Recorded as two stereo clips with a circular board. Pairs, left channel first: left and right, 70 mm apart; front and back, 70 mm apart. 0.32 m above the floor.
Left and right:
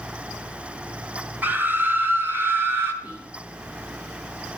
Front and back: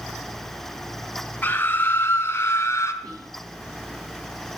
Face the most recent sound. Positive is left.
turn(degrees=-170)